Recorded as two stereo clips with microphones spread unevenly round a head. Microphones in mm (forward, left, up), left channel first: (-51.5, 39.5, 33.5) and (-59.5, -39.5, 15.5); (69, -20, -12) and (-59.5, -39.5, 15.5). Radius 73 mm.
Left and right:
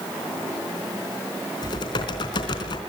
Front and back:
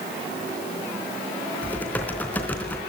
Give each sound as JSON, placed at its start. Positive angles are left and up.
{"t": 1.6, "sound": "typing on a keyboard", "azimuth_deg": 95, "distance_m": 3.5}